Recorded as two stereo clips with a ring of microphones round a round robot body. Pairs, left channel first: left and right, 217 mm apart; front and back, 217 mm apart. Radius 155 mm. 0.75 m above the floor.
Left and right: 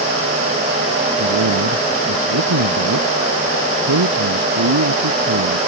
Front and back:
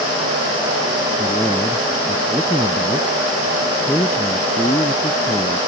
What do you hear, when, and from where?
1.2 s a man speaking: 85° right; by 5.6 s 75° right